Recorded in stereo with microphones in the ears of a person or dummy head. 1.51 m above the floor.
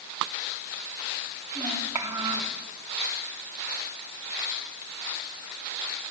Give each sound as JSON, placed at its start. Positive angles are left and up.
{"t": 1.6, "sound": "a child speaking", "side_deg": -15, "distance_m": 3.0}